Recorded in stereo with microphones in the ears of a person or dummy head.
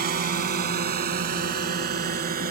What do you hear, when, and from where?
0.0 s a drone: 45° right (ahead or behind)